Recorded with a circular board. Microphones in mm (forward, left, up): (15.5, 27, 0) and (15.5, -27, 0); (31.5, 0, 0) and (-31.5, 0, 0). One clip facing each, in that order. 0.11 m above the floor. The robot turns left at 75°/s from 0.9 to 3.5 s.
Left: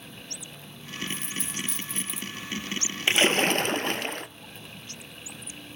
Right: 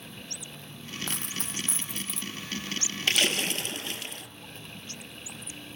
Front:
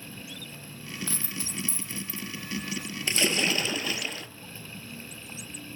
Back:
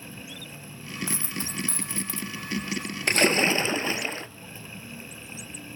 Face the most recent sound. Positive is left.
turn(degrees=125)